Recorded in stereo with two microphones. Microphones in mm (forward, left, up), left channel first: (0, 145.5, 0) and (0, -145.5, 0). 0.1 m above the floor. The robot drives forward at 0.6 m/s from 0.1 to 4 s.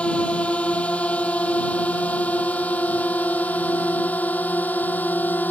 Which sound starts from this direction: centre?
A drone, at 0.0 s.